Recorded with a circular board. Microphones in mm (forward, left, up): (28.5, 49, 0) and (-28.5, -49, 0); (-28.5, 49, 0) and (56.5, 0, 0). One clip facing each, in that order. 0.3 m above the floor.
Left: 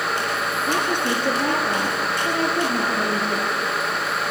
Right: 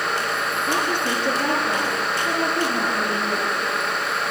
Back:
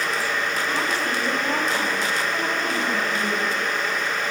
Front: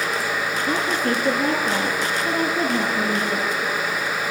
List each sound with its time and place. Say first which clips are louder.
0.7 s a woman speaking: left 1 dB, front 3 dB; 15° left, 7 m